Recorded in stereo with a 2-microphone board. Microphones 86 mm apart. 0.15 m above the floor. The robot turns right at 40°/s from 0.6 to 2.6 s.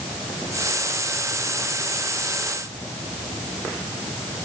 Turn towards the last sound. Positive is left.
No sound to turn to.